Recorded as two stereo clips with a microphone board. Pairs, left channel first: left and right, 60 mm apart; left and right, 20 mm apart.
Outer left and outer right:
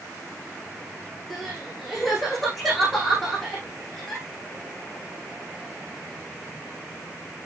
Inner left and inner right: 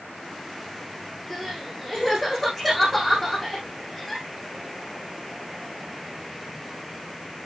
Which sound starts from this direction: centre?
Crying, at 1.3 s.